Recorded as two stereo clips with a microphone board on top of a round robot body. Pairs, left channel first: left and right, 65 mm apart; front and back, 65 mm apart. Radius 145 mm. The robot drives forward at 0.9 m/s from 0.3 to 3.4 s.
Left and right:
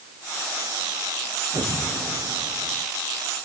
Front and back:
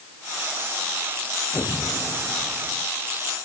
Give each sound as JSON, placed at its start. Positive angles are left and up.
{"t": 1.5, "sound": "an explosion", "azimuth_deg": -65}